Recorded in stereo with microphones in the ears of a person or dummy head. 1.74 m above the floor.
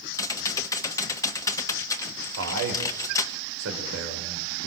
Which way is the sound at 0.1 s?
15° left (ahead or behind).